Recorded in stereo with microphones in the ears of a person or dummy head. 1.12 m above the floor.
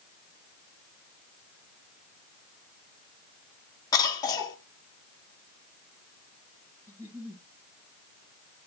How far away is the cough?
About 0.9 m.